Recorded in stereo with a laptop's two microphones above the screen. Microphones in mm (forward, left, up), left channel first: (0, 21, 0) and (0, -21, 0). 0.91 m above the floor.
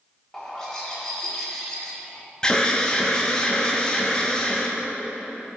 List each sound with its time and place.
0.3 s a bird: 10° left (ahead or behind), 1.4 m
2.4 s an alarm: 15° left (ahead or behind), 0.8 m